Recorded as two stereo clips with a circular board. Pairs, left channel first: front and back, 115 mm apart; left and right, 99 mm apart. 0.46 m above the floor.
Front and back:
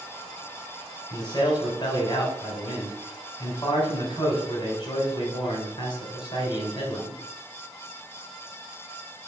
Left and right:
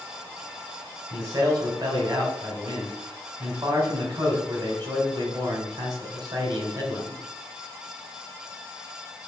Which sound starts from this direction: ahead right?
A man speaking, at 1.1 s.